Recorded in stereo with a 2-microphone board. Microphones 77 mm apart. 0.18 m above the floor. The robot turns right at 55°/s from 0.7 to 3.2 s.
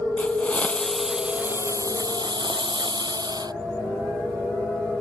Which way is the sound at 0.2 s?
160° left.